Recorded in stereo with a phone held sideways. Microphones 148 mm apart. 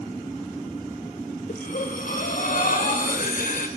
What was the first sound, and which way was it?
Breathing, 65° left (ahead or behind).